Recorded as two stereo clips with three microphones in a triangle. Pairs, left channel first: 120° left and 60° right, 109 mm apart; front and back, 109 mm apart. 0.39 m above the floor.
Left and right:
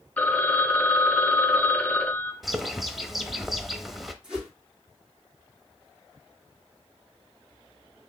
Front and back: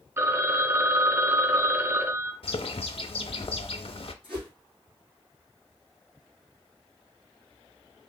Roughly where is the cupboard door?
No cupboard door in this recording.